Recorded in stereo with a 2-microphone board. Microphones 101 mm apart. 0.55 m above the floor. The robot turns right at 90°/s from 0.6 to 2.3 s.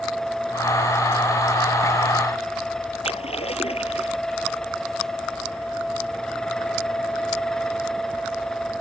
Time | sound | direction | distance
3.0 | a splash | 85° left | ?